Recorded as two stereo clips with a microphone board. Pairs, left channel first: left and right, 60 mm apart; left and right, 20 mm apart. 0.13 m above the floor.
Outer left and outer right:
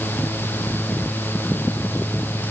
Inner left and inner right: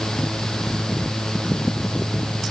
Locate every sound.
Only background noise.